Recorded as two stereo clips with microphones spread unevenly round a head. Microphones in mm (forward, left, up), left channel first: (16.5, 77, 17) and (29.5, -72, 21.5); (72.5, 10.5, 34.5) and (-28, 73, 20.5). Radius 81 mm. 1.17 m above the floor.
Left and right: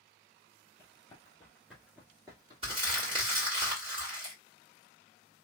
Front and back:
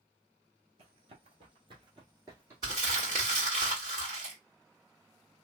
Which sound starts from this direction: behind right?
Crumpling, at 2.6 s.